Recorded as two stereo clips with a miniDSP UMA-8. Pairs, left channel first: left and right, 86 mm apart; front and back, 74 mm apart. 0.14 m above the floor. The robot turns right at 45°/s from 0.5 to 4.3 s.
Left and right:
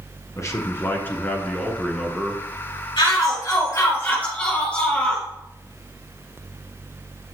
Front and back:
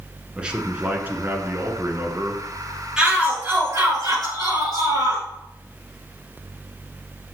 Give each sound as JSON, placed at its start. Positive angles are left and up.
{"t": 0.4, "sound": "a man speaking", "azimuth_deg": 115, "distance_m": 1.5}
{"t": 3.0, "sound": "a shout", "azimuth_deg": 105, "distance_m": 3.5}